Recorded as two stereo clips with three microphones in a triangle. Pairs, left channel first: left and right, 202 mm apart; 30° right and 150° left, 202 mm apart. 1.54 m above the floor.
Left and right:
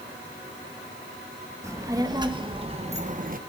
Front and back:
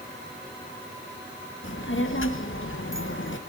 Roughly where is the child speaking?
Ahead.